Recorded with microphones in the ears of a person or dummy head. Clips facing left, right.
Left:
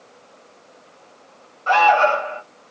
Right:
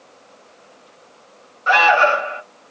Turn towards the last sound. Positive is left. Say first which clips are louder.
# even
turn(degrees=-20)  # may be behind; listen again after turning